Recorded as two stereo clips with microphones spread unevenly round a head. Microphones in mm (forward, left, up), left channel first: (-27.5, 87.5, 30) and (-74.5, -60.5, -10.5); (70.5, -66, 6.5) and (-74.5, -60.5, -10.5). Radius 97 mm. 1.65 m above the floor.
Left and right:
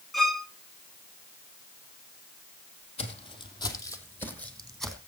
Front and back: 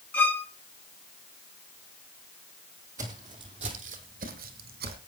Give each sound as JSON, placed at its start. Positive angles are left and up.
{"t": 0.1, "sound": "a violin", "azimuth_deg": 30, "distance_m": 0.7}
{"t": 3.0, "sound": "footsteps", "azimuth_deg": 100, "distance_m": 3.0}